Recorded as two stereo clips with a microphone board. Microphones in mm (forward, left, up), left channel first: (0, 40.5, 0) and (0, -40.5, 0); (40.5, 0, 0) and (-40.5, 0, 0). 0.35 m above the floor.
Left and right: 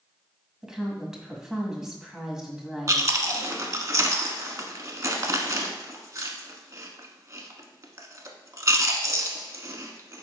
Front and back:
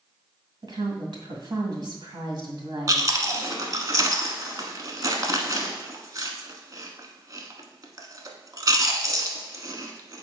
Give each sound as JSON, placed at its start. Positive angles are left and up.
{"t": 0.6, "sound": "a woman speaking", "azimuth_deg": -175, "distance_m": 1.9}
{"t": 2.9, "sound": "chewing", "azimuth_deg": -135, "distance_m": 1.0}